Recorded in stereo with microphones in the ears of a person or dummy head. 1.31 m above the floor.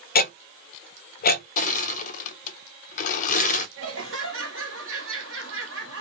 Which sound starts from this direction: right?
Laughter, at 3.8 s.